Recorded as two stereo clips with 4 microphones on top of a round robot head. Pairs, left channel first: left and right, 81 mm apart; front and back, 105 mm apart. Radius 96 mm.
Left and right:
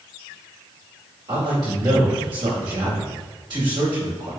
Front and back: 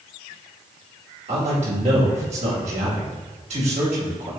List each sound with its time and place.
1.3 s a man speaking: 140° right, 2 m